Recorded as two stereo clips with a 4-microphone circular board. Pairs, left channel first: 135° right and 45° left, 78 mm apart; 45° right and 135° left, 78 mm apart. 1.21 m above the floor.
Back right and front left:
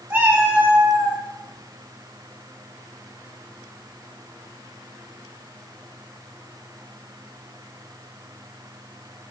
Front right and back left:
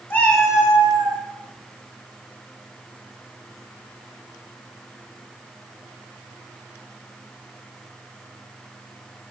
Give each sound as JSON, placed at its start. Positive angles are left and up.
{"t": 0.1, "sound": "a cat meowing", "azimuth_deg": -5, "distance_m": 0.7}